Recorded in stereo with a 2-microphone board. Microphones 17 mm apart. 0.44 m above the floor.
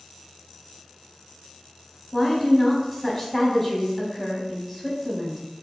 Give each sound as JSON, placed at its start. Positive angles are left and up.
{"t": 2.1, "sound": "a woman speaking", "side_deg": 5, "distance_m": 1.1}